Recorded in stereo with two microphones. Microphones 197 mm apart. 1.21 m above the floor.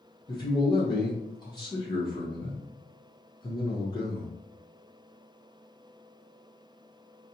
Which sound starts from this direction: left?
A man speaking, at 0.3 s.